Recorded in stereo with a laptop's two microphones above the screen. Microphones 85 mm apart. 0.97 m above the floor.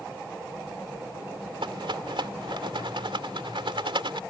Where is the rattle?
80° right.